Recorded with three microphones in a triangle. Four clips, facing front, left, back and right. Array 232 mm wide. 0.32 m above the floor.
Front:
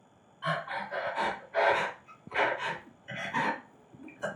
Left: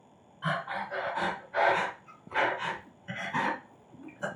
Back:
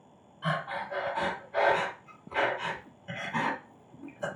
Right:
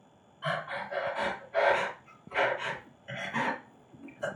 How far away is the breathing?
About 1.9 m.